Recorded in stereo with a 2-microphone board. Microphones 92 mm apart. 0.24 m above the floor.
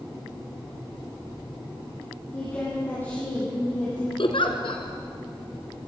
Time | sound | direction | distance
2.3 | a woman speaking | 25° left (ahead or behind) | 8.5 m
4.2 | a giggle | 70° left (ahead or behind) | 2 m